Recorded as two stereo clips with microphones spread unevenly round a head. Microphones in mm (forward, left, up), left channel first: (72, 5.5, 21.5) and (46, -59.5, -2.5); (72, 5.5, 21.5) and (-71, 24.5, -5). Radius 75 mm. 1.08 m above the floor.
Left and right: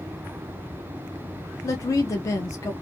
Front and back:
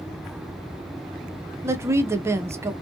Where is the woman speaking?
125° left, 0.6 m.